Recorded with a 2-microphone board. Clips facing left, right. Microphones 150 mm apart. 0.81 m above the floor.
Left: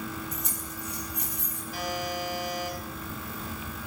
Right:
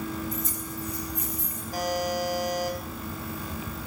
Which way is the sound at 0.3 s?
70° left (ahead or behind).